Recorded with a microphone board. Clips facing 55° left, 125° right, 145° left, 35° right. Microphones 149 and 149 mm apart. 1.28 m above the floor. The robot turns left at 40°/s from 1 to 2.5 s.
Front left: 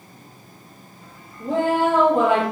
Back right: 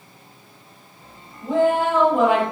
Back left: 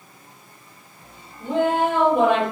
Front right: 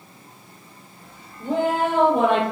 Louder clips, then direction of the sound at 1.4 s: Back right 1 dB, back left 1 dB; 25° left.